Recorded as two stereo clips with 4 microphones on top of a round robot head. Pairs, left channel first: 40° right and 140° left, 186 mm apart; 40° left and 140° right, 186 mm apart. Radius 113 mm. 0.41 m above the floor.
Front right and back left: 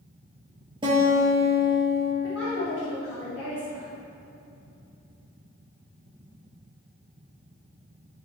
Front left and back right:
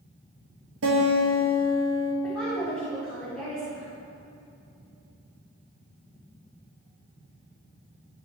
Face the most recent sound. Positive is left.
turn(degrees=-45)